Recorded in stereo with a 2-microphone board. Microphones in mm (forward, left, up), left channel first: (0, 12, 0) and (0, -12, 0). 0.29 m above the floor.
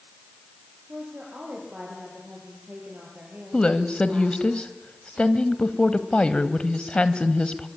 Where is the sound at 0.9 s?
50° right (ahead or behind), 8 m.